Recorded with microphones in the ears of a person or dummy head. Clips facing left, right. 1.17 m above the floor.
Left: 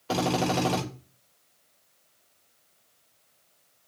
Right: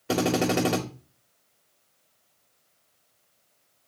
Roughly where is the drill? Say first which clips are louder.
Right 2 dB; right.